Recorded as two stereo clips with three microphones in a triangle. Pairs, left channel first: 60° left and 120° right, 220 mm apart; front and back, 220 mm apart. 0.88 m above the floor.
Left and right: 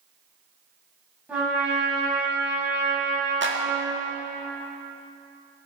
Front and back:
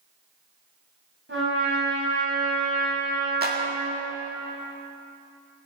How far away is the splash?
I don't hear a splash.